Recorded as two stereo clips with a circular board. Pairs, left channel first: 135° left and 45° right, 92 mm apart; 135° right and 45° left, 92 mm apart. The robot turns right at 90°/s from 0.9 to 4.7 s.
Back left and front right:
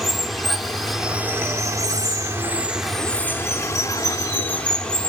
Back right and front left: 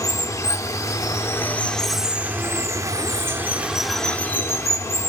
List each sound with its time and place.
0.0 s running water: 135° right, 0.8 m; by 5.1 s 155° right, 0.8 m